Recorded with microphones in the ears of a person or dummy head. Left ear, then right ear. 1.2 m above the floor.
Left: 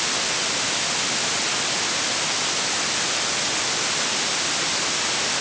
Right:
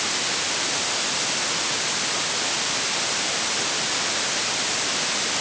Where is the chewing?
I don't hear chewing.